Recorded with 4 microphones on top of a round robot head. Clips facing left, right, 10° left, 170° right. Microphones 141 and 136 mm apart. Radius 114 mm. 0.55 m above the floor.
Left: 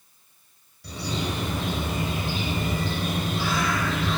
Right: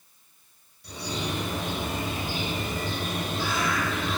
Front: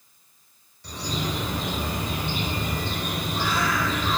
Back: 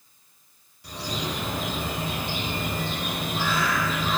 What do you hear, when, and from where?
0.8 s a bird: 105° left, 3.5 m